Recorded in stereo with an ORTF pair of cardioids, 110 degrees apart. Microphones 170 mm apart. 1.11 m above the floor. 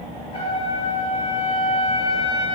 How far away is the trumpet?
About 3 m.